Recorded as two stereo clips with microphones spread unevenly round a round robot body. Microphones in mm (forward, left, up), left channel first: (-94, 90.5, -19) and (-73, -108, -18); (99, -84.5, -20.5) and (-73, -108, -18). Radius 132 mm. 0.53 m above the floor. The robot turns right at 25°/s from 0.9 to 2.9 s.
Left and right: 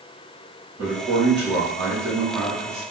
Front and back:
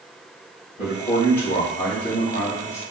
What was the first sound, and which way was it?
A man speaking, 35° right.